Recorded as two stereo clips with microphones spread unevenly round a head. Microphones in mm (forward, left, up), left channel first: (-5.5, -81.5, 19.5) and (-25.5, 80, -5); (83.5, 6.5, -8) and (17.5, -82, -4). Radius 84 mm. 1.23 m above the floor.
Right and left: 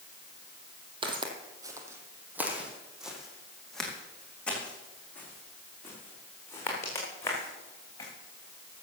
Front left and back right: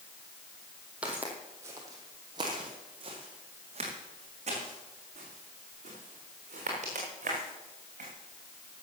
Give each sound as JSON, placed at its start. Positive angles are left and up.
{"t": 1.0, "sound": "footsteps", "azimuth_deg": 155, "distance_m": 1.7}